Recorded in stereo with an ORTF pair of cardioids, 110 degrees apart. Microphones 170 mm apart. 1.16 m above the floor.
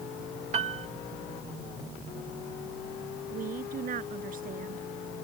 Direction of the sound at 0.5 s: 40° right.